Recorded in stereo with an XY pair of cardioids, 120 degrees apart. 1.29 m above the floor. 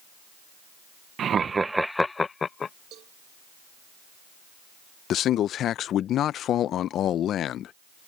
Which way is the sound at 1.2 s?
50° right.